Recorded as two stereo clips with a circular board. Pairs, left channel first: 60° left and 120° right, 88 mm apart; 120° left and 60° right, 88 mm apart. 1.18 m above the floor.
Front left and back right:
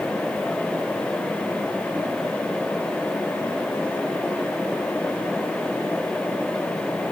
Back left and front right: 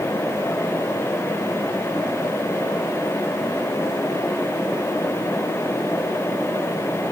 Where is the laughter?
I don't hear laughter.